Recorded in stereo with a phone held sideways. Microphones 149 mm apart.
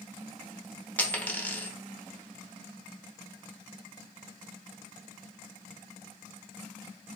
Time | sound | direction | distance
1.0 | a dropped coin | 10° left (ahead or behind) | 0.7 m